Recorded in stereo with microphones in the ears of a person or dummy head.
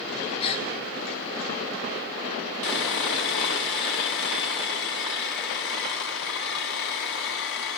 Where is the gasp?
35° left (ahead or behind), 0.6 m.